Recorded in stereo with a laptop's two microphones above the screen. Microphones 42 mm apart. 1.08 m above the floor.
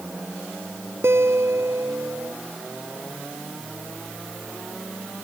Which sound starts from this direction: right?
A guitar, at 1.0 s.